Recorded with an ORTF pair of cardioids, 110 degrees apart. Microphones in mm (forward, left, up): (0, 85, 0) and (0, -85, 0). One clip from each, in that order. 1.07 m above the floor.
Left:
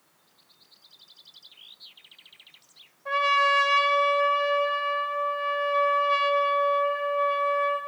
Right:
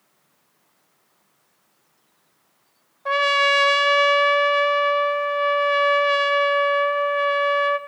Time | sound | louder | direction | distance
3.0 | a trumpet | right 4 dB | 55° right | 0.9 m